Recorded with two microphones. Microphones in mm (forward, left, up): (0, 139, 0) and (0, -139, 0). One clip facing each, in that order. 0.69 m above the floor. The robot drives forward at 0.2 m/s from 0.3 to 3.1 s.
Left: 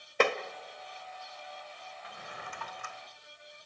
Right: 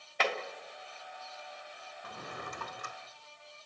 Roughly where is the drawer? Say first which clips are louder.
Right 5 dB; right.